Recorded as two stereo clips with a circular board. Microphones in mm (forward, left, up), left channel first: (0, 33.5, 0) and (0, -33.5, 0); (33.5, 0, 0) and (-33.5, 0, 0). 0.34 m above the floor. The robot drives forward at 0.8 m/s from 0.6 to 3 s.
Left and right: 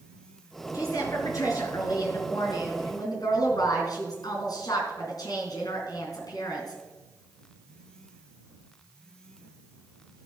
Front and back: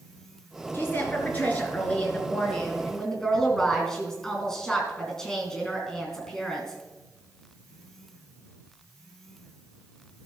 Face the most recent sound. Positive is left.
turn(degrees=80)